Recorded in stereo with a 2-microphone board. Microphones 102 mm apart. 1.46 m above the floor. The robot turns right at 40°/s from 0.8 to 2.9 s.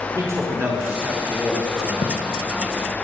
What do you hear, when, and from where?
0.1 s a man speaking: 30° right, 5.5 m; by 1.9 s 15° left, 5.5 m
2.0 s a gunshot: 75° left (ahead or behind), 1.7 m; by 2.2 s 85° left, 1.7 m